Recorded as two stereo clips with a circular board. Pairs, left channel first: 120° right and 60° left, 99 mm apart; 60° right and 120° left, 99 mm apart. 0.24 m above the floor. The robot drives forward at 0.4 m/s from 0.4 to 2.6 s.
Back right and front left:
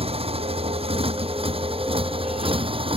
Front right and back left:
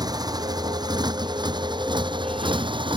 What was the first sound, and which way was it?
A motorcycle, 70° left.